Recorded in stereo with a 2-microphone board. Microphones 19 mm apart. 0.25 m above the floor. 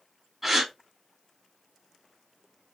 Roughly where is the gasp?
Centre.